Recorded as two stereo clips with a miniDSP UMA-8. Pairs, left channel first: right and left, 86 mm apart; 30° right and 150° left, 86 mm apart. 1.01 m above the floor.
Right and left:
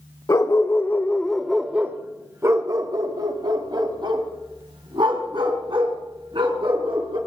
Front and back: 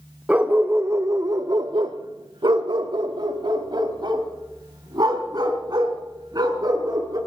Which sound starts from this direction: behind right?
A dog barking, at 0.3 s.